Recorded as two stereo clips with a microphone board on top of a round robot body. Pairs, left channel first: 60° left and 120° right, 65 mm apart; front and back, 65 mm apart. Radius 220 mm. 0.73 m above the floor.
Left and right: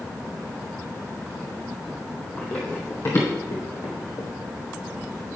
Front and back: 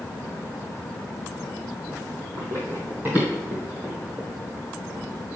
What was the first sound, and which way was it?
Running footsteps, 140° left.